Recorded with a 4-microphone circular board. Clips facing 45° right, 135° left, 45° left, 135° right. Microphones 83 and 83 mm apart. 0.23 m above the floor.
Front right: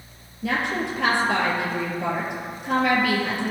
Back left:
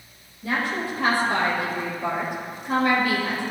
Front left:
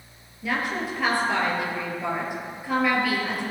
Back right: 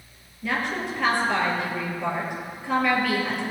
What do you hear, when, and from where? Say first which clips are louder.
0.4 s a woman speaking: front right 1 dB, even; 40° right, 4.5 m